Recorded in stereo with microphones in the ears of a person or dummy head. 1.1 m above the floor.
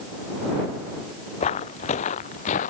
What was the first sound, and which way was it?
Footsteps, 35° left (ahead or behind).